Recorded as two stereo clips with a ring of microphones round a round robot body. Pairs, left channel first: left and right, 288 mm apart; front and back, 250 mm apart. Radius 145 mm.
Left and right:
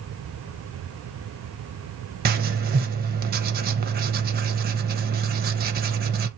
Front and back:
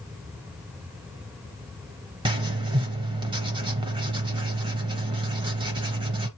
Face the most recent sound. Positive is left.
turn(degrees=-120)